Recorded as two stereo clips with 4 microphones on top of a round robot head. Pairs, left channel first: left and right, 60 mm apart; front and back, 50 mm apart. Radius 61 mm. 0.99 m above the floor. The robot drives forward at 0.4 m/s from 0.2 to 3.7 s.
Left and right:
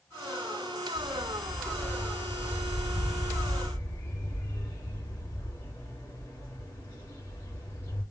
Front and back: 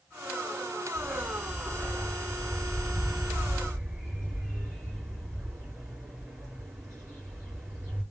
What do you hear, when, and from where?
0.9 s a dog barking: 135° left, 2.5 m; by 8.0 s 145° left, 3.5 m